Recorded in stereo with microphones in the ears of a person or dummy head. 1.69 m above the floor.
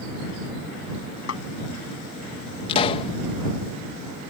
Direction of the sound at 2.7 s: 35° left (ahead or behind).